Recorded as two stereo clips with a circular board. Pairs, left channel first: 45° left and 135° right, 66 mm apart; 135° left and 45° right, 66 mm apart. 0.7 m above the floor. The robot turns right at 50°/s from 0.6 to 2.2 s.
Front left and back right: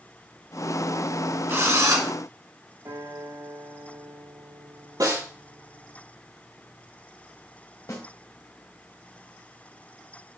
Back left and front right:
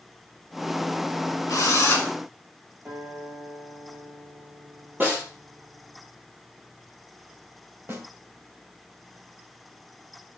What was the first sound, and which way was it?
A drill, 170° left.